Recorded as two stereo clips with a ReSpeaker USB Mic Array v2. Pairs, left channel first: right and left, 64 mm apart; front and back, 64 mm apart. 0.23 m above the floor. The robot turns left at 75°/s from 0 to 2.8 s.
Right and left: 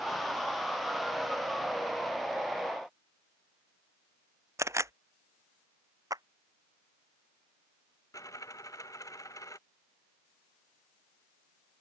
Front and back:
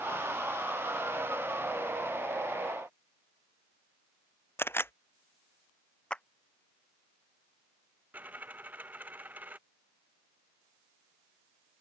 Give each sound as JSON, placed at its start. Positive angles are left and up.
{"t": 4.6, "sound": "a camera shutter", "azimuth_deg": 50}
{"t": 6.1, "sound": "a clap", "azimuth_deg": 75}
{"t": 8.1, "sound": "a dropped coin", "azimuth_deg": -120}